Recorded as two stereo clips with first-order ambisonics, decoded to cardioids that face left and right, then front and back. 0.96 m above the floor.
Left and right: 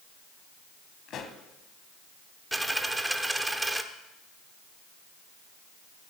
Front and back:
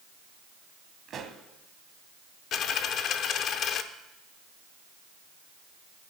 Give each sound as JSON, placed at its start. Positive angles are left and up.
{"t": 1.1, "sound": "a pop", "azimuth_deg": 130, "distance_m": 1.1}
{"t": 2.5, "sound": "a dropped coin", "azimuth_deg": -5, "distance_m": 0.6}